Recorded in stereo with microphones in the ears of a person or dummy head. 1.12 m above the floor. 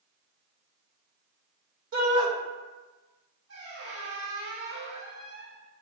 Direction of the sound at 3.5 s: 85° right.